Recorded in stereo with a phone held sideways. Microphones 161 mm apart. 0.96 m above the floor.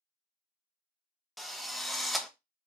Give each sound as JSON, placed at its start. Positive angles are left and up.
{"t": 1.4, "sound": "a drill", "side_deg": 0, "distance_m": 0.6}